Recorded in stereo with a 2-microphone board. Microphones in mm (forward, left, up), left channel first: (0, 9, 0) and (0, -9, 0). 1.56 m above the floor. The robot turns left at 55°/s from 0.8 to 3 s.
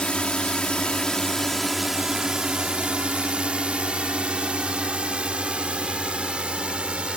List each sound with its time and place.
0.0 s a drone: 65° left (ahead or behind); by 7.2 s 75° right (ahead or behind)